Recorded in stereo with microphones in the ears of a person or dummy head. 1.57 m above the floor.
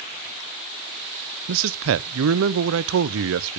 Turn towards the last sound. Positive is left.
turn(degrees=-75)  # may be behind; listen again after turning